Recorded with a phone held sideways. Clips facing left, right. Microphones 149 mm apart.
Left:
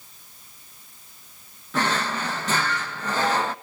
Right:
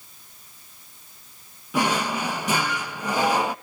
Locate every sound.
1.7 s a drawer: 10° right (ahead or behind), 0.6 m